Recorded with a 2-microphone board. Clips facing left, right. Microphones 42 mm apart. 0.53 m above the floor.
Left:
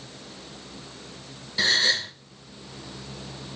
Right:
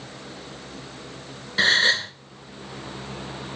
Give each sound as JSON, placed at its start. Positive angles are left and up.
{"t": 1.6, "sound": "a gasp", "side_deg": -45, "distance_m": 1.2}